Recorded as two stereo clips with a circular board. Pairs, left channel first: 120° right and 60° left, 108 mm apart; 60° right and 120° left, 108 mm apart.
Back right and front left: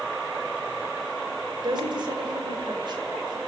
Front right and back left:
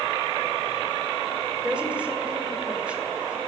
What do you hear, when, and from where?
1.6 s a woman speaking: 45° left, 1.9 m